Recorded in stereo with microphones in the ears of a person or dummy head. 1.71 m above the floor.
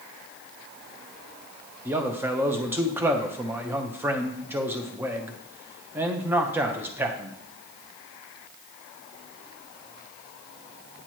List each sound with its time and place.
1.9 s a man speaking: 15° right (ahead or behind), 0.7 m